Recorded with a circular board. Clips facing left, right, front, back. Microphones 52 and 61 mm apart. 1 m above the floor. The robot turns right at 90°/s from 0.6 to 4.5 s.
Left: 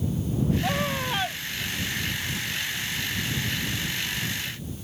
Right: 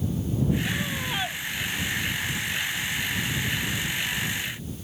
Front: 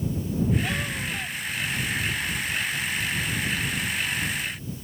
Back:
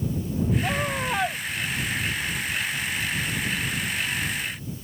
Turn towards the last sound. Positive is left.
turn(degrees=105)